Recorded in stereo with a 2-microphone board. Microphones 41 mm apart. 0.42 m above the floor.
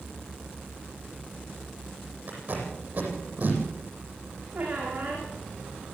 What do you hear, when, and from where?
2.3 s tape being pulled: 40° right (ahead or behind), 9 m
4.5 s a squeak: 30° right (ahead or behind), 9.5 m